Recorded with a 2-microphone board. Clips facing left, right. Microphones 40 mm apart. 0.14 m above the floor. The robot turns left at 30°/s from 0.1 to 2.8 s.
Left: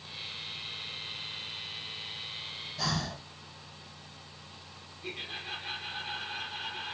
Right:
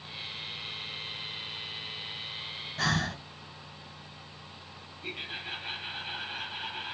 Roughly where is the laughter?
Centre.